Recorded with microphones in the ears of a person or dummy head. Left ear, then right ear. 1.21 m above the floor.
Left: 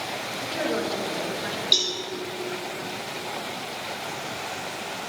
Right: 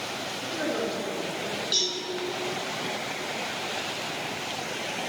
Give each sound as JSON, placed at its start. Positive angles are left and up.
{"t": 0.4, "sound": "a woman speaking", "side_deg": 25, "distance_m": 1.4}
{"t": 1.7, "sound": "a cowbell", "side_deg": 30, "distance_m": 3.0}